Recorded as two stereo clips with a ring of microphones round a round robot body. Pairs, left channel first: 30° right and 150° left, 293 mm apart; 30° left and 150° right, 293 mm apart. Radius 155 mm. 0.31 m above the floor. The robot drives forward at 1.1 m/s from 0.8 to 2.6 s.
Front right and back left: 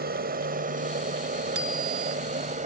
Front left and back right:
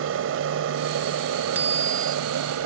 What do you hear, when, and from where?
0.0 s an aircraft: 165° right; by 2.7 s 150° right
1.6 s a bicycle bell: 125° left; by 2.2 s 135° left